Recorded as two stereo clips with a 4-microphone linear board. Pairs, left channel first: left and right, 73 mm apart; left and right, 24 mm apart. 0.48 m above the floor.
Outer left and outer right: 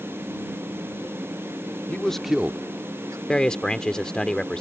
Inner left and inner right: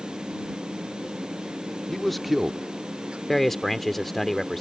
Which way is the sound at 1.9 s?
20° left (ahead or behind).